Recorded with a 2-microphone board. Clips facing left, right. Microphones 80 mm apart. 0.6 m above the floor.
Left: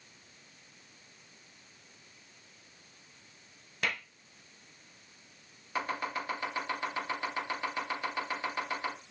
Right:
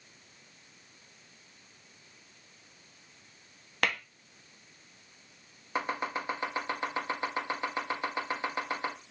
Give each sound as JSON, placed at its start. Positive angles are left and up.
{"t": 3.8, "sound": "tapping", "side_deg": -65, "distance_m": 0.8}
{"t": 5.8, "sound": "chopping", "side_deg": -20, "distance_m": 1.1}